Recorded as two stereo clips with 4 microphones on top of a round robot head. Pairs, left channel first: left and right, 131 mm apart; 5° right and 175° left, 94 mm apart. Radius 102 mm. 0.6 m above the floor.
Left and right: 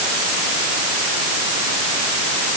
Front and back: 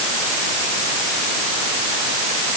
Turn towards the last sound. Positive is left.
No sound to turn to.